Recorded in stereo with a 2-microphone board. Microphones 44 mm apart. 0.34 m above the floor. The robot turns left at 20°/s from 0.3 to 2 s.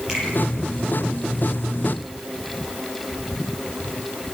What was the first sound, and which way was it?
A finger snap, 15° right (ahead or behind).